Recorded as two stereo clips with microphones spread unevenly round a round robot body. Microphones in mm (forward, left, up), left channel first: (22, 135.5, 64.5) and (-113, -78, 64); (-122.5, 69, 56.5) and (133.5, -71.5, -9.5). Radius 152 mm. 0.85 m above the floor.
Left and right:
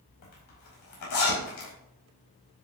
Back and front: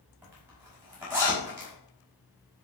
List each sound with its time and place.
0.2 s a zipper: 55° left, 5 m